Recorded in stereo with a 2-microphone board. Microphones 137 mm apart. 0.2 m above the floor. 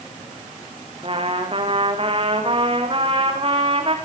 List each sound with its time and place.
1.0 s a trumpet: 45° right (ahead or behind), 4.5 m